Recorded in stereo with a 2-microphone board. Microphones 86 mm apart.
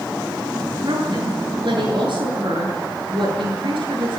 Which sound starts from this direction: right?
A woman speaking, at 0.8 s.